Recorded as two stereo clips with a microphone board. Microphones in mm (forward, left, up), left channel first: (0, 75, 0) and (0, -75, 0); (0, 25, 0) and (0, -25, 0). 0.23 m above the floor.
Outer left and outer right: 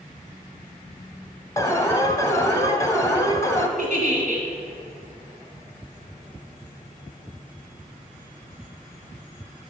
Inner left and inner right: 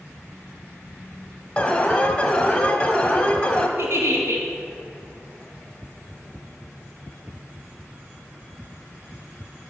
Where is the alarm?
20° left (ahead or behind), 1.0 m.